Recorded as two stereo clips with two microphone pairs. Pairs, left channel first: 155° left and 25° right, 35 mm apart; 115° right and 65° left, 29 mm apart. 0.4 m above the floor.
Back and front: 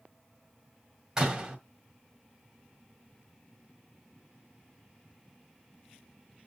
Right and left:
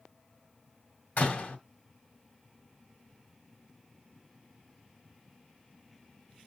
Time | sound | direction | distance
1.2 | a door slam | 100° right | 1.6 m